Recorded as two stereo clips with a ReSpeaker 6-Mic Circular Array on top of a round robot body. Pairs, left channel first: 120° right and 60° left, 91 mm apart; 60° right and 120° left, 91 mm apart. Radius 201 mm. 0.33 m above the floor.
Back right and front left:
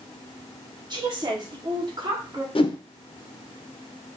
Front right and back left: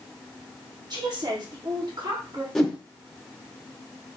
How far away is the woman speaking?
About 1.6 m.